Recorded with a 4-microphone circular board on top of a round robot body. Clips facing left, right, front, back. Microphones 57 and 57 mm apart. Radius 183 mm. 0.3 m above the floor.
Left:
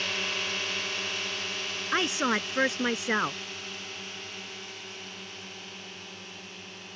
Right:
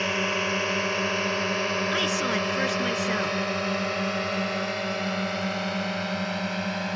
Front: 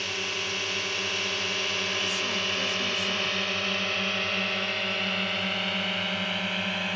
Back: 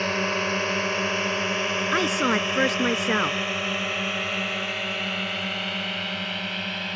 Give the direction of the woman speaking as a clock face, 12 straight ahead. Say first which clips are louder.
Right 2 dB, back 8 dB; 7 o'clock.